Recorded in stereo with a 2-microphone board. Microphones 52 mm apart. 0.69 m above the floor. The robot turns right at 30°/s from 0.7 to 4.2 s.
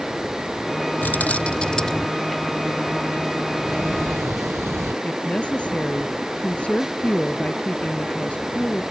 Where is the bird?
No bird in this recording.